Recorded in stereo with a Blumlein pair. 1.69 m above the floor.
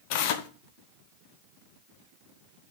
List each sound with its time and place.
0.1 s tearing paper: 45° left, 1.4 m